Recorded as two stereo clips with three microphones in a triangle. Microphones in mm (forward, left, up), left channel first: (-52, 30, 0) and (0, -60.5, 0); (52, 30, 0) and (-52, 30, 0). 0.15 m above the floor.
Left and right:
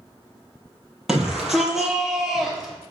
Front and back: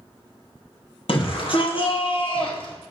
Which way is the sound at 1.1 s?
25° left.